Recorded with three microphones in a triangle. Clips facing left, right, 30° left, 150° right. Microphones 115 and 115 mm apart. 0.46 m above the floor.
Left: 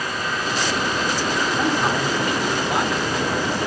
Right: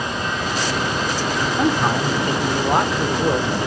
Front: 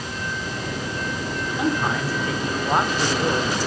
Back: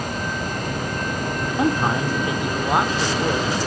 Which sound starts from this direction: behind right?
A man speaking, at 1.6 s.